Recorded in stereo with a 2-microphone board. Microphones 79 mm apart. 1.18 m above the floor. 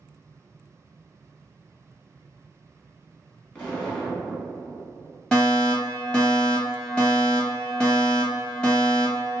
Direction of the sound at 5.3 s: 10° left (ahead or behind).